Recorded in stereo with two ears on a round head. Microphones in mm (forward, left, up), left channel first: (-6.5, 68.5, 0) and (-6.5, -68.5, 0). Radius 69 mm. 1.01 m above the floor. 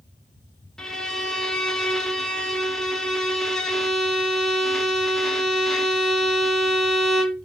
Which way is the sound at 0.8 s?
5° left (ahead or behind).